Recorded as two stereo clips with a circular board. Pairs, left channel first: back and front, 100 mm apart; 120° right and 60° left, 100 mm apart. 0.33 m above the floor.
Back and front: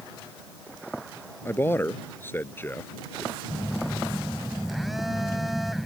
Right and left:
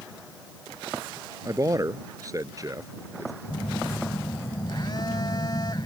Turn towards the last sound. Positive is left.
turn(degrees=-90)